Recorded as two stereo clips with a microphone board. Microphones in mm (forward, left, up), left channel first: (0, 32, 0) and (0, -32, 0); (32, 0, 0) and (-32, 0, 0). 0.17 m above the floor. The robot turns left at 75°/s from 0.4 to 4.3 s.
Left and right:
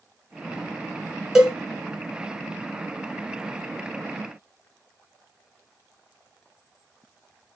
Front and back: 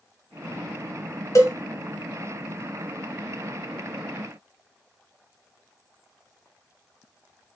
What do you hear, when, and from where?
1.4 s a cowbell: 10° right, 0.9 m; by 1.6 s 25° right, 0.9 m